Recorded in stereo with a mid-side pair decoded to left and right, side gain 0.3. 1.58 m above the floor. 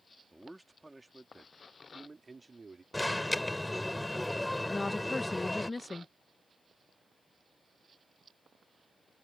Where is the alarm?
20° left.